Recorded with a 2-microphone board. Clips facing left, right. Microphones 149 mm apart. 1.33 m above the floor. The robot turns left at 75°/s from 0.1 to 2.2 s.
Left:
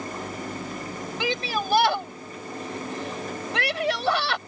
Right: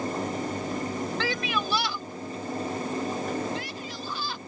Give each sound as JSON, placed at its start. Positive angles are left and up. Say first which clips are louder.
{"t": 1.2, "sound": "a shout", "louder": "left 2 dB", "side_deg": 15}